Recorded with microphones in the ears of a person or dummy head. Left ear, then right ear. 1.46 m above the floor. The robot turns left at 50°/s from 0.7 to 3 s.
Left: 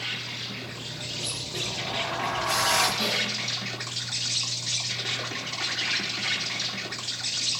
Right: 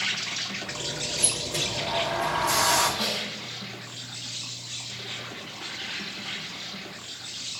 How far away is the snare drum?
About 9.5 m.